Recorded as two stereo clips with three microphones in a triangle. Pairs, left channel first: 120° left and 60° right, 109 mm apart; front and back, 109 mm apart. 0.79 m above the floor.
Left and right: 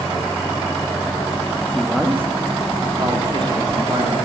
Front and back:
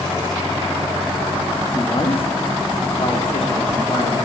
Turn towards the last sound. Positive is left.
turn(degrees=-25)